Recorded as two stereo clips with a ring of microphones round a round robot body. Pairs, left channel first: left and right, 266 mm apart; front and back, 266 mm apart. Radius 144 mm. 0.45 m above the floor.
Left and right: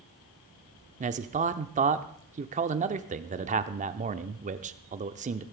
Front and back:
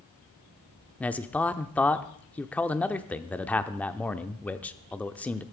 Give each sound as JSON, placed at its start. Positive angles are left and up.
{"t": 1.0, "sound": "a man speaking", "azimuth_deg": -80, "distance_m": 0.7}